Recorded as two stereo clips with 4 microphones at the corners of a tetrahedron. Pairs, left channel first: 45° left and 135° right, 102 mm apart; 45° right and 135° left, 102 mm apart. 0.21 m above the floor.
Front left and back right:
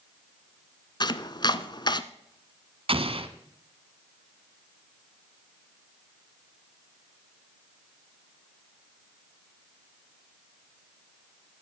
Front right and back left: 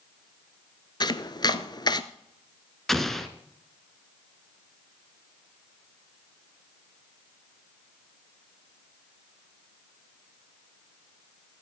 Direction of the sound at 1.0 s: Straight ahead.